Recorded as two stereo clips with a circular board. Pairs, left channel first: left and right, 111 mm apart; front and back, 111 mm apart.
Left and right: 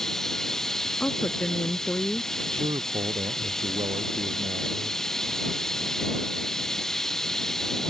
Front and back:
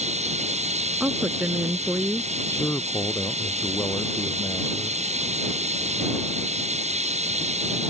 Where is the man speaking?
65° right.